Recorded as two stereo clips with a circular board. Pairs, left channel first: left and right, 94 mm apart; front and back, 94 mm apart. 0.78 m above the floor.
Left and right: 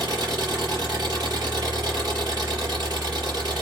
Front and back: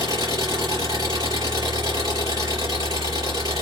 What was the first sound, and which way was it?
An engine running, 130° right.